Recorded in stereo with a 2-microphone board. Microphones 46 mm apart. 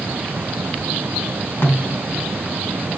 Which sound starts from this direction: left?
A snare drum, at 1.6 s.